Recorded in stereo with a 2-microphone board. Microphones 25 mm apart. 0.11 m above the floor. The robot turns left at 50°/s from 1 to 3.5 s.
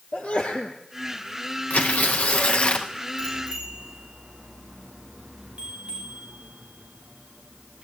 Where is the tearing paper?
100° left, 2 m; by 2.9 s 40° left, 2 m.